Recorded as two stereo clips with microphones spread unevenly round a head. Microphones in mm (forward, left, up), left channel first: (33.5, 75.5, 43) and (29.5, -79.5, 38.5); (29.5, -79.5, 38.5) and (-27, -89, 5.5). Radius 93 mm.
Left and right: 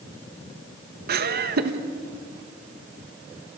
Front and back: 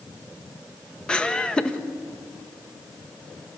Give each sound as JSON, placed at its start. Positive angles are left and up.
{"t": 1.1, "sound": "laughter", "azimuth_deg": -75, "distance_m": 2.0}